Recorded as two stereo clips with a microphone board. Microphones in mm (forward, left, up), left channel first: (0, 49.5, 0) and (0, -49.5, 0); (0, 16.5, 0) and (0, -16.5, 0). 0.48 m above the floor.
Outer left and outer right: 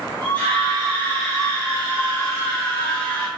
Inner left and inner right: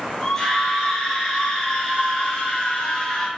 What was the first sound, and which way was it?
A scream, 15° left (ahead or behind).